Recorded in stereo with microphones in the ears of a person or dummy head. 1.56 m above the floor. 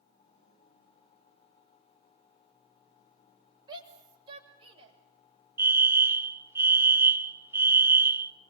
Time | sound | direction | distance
3.7 | a shout | 20° right (ahead or behind) | 5.5 m
5.6 | a fire alarm | 10° right (ahead or behind) | 0.8 m